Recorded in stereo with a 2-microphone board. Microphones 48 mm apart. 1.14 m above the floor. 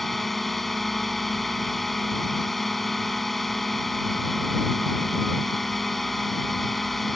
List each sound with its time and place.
0.0 s a drone: 5° left (ahead or behind)